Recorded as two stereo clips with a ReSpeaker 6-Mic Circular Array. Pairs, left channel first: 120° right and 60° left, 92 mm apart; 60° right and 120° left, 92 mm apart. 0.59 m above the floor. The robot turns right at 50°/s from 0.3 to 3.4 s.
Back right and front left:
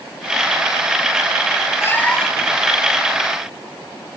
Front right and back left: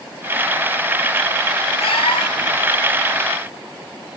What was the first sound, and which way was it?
A cat meowing, 60° right.